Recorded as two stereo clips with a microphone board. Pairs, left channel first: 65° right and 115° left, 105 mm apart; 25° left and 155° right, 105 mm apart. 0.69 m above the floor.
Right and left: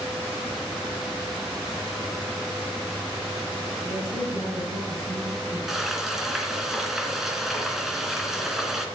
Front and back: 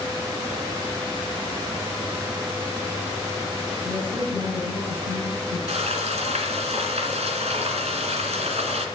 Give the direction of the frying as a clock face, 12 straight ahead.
5 o'clock.